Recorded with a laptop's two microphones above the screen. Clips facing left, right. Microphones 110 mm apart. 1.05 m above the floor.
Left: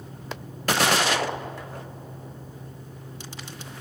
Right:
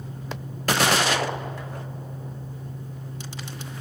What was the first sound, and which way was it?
A fan, 20° left (ahead or behind).